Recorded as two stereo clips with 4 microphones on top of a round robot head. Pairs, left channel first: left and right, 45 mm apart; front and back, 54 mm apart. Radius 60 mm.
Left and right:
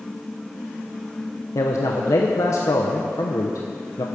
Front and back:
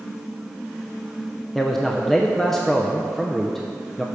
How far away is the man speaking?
About 0.7 m.